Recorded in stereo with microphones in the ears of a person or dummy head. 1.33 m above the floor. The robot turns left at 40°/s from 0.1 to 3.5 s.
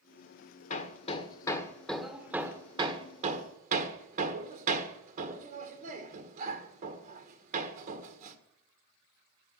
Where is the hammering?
45° left (ahead or behind), 1.6 m; by 8.4 s 50° right (ahead or behind), 1.6 m.